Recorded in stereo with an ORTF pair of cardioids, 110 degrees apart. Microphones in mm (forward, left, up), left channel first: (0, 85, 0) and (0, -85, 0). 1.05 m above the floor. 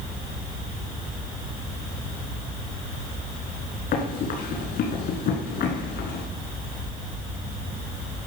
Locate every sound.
3.9 s running footsteps: 65° left, 4 m